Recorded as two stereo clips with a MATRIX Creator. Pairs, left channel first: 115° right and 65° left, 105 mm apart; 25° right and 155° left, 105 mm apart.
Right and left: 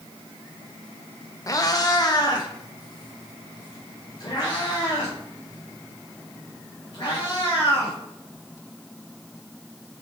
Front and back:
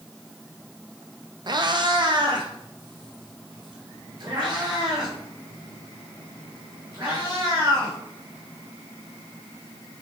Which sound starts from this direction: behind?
A cat meowing, at 1.5 s.